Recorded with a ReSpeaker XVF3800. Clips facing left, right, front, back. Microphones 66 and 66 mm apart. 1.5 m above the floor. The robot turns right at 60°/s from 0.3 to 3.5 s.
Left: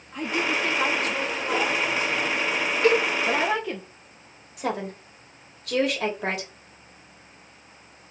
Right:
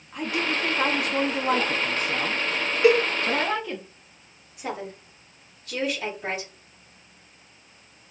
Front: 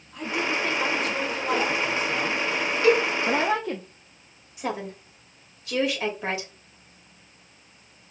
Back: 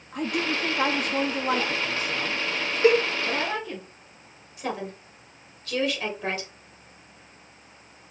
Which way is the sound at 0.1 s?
Straight behind.